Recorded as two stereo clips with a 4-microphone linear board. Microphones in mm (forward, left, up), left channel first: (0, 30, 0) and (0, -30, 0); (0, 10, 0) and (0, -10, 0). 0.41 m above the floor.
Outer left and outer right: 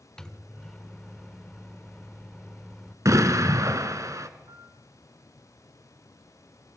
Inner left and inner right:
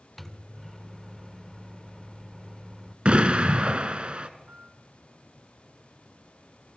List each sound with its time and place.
0.2 s a microwave: 10° left (ahead or behind), 0.8 m
3.0 s an explosion: 60° right (ahead or behind), 1.3 m
4.5 s a piano: 70° right (ahead or behind), 1.5 m